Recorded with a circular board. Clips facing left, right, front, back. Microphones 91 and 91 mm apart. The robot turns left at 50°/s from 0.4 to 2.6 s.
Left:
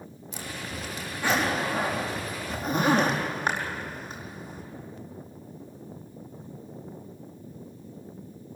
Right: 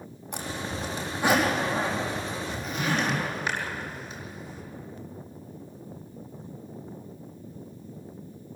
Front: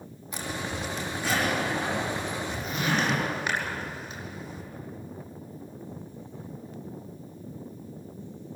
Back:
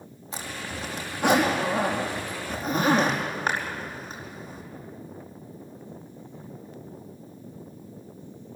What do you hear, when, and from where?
0.3 s a zipper: 120° right, 4.5 m; by 4.6 s 130° left, 4.5 m